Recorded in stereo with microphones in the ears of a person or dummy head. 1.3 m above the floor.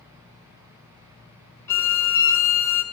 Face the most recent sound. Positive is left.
turn(degrees=10)  # may be behind; listen again after turning